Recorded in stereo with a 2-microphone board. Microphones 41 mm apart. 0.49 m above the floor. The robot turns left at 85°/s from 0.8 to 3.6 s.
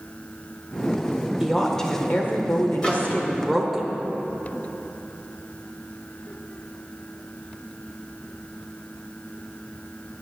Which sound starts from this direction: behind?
A woman speaking, at 1.4 s.